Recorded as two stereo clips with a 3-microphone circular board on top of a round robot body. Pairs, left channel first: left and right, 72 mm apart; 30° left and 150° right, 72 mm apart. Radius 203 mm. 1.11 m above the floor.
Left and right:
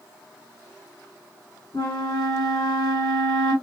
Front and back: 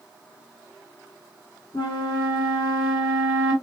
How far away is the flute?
About 3 m.